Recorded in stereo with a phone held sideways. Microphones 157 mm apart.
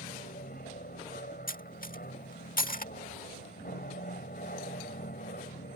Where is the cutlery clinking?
65° left (ahead or behind).